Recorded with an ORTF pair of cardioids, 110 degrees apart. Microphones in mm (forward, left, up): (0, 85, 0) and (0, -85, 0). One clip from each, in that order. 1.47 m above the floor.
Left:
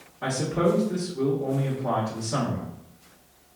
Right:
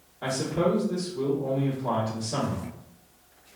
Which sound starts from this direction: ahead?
A man speaking, at 0.2 s.